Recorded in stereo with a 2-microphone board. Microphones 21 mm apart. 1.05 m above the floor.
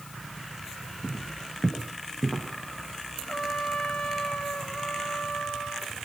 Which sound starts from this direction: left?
A trumpet, at 3.3 s.